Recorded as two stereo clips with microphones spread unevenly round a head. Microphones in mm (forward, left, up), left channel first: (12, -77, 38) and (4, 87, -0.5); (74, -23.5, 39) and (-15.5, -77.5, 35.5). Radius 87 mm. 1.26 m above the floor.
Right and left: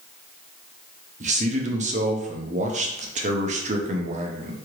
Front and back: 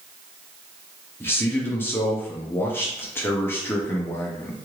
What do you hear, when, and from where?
1.2 s a man speaking: 100° left, 0.8 m